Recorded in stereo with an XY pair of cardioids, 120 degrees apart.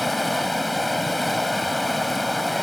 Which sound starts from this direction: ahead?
Running water, at 0.0 s.